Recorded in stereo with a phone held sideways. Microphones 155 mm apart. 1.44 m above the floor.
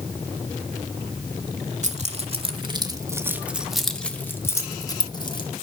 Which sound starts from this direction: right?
Keys jangling, at 1.8 s.